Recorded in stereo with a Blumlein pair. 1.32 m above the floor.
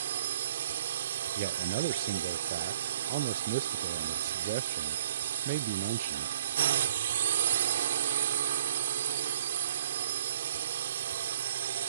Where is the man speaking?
50° right.